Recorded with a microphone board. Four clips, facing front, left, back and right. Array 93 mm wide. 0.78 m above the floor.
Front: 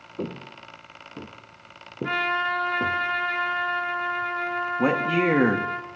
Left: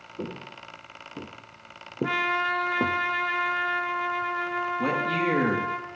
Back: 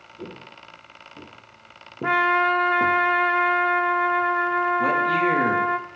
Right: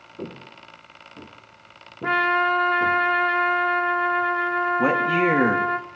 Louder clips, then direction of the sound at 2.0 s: Right 6 dB, back 6 dB; 145° right.